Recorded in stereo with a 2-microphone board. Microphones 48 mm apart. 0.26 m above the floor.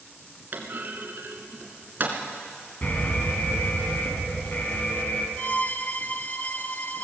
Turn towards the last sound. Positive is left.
turn(degrees=40)  # may be behind; listen again after turning